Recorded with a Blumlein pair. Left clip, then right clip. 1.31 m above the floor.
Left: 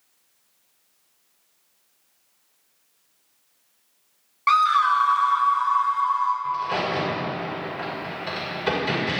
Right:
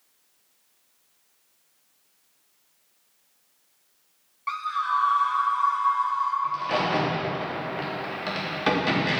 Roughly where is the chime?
No chime in this recording.